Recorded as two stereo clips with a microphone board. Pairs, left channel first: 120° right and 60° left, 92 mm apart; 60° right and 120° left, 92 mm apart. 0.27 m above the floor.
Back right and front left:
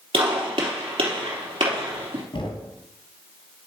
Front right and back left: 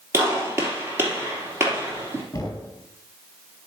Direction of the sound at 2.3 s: 115° right.